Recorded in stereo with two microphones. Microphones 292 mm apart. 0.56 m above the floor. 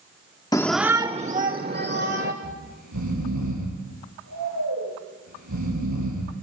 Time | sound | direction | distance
0.5 | a shout | 15° left (ahead or behind) | 0.7 m
2.4 | snoring | 80° right | 9.5 m